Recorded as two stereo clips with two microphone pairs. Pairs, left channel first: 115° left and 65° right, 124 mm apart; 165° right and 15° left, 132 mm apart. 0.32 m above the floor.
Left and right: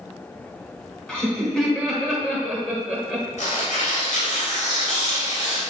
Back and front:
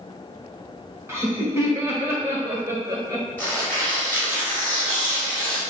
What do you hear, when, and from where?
1.1 s laughter: 40° left, 1.3 m
3.4 s tearing paper: 120° left, 2 m